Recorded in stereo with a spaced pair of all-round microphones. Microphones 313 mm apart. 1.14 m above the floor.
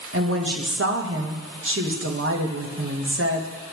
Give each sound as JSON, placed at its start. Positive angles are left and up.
{"t": 0.1, "sound": "a woman speaking", "side_deg": -40, "distance_m": 1.1}